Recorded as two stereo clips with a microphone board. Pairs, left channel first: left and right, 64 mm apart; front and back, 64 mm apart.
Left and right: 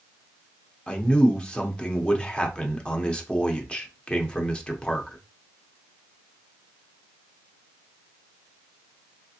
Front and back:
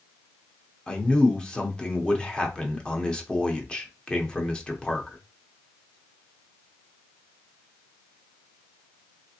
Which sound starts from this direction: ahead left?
A man speaking, at 0.9 s.